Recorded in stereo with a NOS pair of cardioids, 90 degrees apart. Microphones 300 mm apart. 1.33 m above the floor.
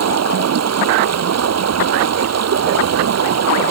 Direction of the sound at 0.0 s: 55° right.